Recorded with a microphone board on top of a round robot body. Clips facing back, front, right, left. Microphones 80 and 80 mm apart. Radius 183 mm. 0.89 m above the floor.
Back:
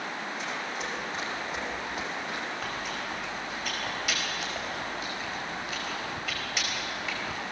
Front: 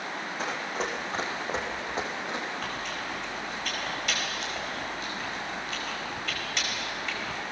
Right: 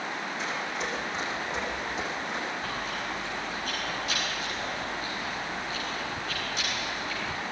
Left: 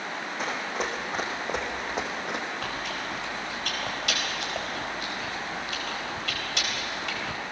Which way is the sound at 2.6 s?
95° left.